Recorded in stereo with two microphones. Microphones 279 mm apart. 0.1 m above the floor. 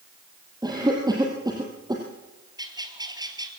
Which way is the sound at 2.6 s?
15° right (ahead or behind).